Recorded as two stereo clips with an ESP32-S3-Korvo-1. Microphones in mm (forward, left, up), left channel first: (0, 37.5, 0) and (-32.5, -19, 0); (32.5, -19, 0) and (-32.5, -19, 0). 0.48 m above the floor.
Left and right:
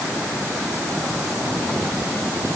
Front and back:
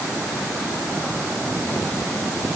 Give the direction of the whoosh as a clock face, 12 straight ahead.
I don't hear a whoosh.